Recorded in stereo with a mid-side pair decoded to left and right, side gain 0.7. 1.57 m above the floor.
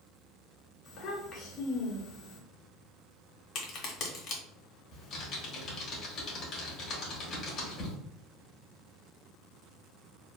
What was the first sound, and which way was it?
A child speaking, 40° left.